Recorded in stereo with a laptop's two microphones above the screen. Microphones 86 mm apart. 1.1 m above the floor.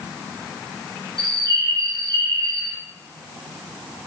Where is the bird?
50° right (ahead or behind), 3.5 m.